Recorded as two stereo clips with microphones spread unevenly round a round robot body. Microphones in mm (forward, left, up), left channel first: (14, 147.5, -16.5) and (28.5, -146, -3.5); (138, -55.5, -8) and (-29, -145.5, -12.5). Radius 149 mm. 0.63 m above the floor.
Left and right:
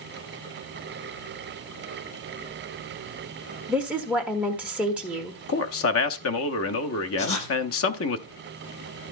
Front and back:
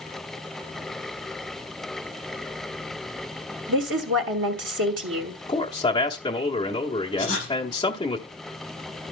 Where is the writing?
65° left, 6 m.